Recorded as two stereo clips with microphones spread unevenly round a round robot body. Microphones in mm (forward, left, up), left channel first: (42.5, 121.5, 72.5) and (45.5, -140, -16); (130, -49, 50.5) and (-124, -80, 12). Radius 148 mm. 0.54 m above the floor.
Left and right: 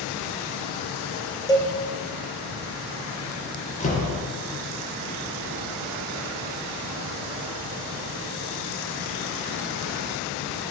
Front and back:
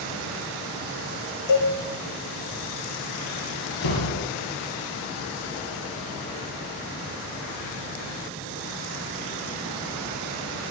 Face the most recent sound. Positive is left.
turn(degrees=25)